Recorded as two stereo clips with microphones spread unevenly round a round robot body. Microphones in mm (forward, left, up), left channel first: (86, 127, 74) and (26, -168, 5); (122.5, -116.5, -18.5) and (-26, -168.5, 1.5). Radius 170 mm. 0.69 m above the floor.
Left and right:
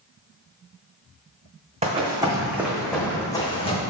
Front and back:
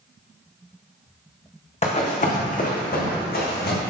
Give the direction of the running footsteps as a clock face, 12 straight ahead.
1 o'clock.